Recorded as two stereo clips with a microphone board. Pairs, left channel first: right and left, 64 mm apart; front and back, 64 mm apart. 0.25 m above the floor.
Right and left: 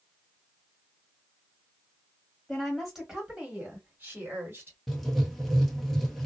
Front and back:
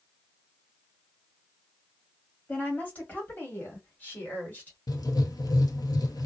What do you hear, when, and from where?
2.5 s a woman speaking: 15° right, 1.3 m; by 4.8 s 55° left, 1.7 m
4.9 s writing: straight ahead, 0.7 m